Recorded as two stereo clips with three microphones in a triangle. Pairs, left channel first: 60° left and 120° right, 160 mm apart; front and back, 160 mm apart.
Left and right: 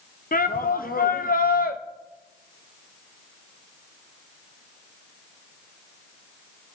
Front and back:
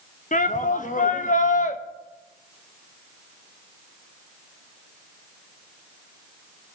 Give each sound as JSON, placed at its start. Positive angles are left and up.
{"t": 0.3, "sound": "a shout", "azimuth_deg": 35, "distance_m": 1.2}